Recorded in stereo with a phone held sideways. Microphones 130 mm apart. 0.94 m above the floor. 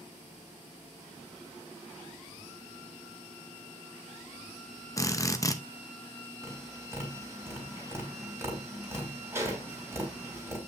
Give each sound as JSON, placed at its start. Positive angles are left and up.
{"t": 5.0, "sound": "a drill", "side_deg": 25, "distance_m": 0.7}
{"t": 6.4, "sound": "tapping", "side_deg": -20, "distance_m": 3.5}